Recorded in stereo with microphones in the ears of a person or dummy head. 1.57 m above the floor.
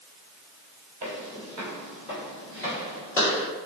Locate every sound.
1.0 s footsteps: 25° right (ahead or behind), 1.7 m; by 3.5 s 20° left (ahead or behind), 1.8 m